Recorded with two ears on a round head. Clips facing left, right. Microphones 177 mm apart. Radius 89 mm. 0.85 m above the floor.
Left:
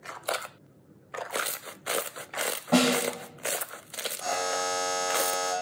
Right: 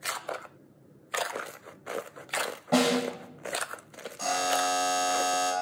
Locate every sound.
2.7 s a snare drum: centre (ahead or behind), 4.5 m
4.2 s a buzzer: 80° right, 8.5 m